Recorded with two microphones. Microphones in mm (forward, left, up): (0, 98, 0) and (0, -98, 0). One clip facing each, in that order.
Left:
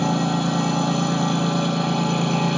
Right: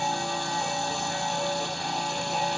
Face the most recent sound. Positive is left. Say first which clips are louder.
# left 10 dB
turn(degrees=70)  # may be behind; listen again after turning